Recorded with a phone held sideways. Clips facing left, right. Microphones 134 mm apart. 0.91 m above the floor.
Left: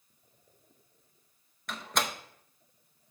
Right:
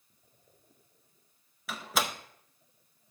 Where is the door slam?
5° right (ahead or behind), 0.6 m.